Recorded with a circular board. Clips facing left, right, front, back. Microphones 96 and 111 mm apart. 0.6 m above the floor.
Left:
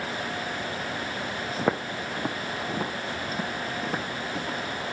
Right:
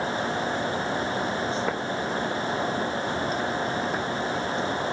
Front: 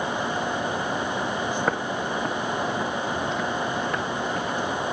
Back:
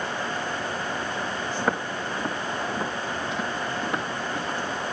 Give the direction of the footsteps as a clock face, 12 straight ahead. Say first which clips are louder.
Even, front 1 dB; 9 o'clock.